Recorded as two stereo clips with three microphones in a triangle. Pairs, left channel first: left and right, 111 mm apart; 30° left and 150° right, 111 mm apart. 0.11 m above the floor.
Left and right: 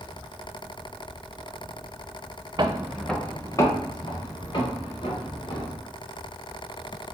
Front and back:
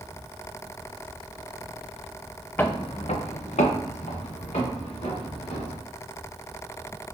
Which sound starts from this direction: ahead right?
Footsteps, at 2.6 s.